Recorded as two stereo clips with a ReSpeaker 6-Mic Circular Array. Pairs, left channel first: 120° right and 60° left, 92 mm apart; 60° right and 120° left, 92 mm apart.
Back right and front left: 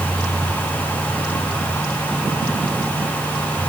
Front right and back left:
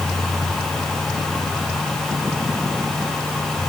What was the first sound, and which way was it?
Only background noise.